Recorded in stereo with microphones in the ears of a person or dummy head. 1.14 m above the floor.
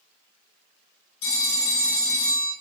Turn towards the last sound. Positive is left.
turn(degrees=70)  # may be behind; listen again after turning